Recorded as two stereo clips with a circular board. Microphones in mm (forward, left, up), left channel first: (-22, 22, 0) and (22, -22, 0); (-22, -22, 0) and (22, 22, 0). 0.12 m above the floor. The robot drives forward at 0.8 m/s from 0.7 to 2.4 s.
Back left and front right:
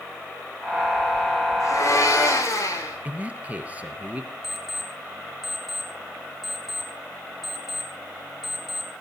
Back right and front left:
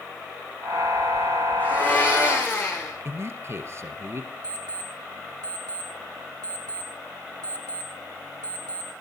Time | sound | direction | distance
1.6 | a blender | 160° left | 6.5 m
3.0 | a man speaking | 15° left | 2.5 m
4.4 | an alarm clock | 45° left | 2.5 m